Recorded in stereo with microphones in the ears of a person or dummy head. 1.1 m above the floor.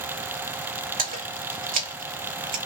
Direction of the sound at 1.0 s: 40° right (ahead or behind).